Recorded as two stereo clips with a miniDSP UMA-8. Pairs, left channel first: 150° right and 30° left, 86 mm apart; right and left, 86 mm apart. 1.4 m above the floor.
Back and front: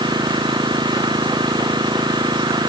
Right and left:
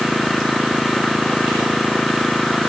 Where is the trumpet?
I don't hear a trumpet.